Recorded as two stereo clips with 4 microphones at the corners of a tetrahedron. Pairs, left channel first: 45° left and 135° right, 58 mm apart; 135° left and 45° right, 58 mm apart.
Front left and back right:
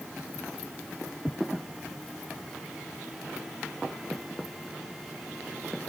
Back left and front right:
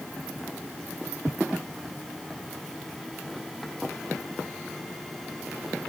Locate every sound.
Only background noise.